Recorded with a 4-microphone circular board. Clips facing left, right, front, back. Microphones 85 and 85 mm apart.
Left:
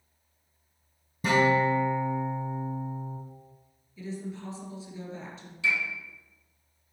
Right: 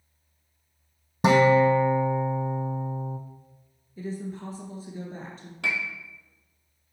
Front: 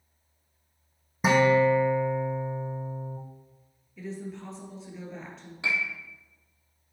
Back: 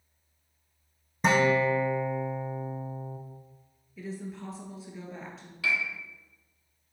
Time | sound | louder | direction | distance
1.2 | a guitar | right 5 dB, front 3 dB | 85° right | 1.3 m
4.0 | a woman speaking | right 3 dB, front 1 dB | 95° right | 1.9 m
5.6 | a piano | left 1 dB, even | 65° right | 1.3 m